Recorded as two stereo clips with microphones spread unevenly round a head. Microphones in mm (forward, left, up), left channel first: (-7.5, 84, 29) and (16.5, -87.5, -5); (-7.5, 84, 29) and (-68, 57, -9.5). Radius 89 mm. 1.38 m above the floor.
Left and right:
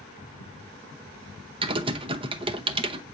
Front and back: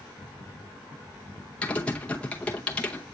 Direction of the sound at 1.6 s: 15° right.